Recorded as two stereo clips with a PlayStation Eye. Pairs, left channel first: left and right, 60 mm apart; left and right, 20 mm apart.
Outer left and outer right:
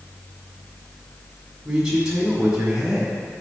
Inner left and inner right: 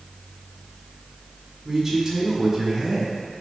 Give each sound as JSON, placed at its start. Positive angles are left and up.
{"t": 1.6, "sound": "a man speaking", "side_deg": -15, "distance_m": 1.7}